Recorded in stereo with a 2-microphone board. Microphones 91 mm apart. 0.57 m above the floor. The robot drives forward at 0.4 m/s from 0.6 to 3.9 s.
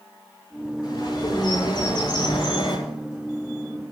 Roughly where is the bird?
Left.